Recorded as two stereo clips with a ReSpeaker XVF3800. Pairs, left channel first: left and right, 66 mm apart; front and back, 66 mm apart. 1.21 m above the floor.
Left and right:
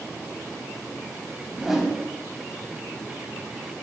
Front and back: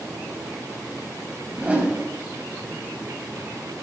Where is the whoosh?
165° right, 1.1 m.